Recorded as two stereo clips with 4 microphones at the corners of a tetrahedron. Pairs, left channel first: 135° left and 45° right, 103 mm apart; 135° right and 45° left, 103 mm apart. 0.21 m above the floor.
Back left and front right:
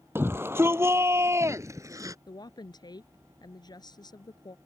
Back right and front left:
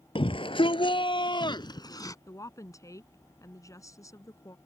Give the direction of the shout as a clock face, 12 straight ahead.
4 o'clock.